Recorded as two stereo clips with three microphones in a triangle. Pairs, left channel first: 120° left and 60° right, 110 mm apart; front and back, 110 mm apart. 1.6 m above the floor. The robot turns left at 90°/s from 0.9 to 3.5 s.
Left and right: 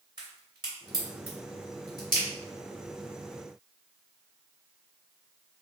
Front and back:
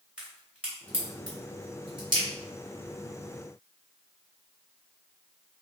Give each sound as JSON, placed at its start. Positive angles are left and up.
{"t": 0.2, "sound": "a crack", "azimuth_deg": -105, "distance_m": 1.7}